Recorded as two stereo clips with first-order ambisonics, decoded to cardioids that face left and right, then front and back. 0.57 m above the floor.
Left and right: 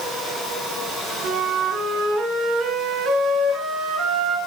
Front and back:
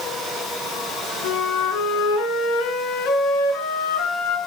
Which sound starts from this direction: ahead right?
A flute, at 1.2 s.